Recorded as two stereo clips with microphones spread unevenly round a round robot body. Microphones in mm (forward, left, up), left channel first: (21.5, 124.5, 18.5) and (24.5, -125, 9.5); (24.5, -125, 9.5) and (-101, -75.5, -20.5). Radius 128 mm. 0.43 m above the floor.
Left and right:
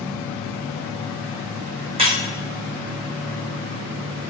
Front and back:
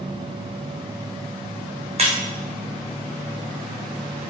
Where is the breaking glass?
160° right, 4.5 m.